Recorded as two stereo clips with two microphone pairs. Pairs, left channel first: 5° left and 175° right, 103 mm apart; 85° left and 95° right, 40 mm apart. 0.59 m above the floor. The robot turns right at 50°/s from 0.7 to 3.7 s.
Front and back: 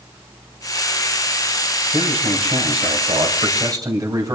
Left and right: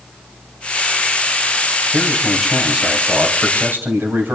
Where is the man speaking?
145° left, 3 m; by 4.3 s 125° right, 3 m.